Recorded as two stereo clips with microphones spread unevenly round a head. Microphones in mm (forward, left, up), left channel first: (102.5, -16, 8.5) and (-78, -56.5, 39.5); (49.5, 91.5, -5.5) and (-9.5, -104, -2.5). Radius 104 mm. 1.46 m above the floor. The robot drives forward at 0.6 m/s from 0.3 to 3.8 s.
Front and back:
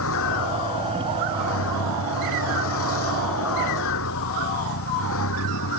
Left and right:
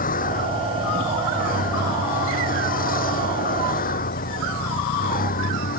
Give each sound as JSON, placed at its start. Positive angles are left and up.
{"t": 0.0, "sound": "a vehicle", "azimuth_deg": 25}